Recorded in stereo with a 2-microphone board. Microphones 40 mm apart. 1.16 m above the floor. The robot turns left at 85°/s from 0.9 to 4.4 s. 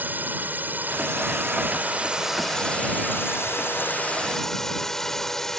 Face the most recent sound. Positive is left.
turn(degrees=10)